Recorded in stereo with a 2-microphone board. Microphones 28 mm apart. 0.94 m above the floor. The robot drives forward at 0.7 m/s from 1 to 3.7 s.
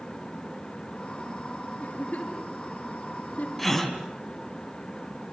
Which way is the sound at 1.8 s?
55° left (ahead or behind).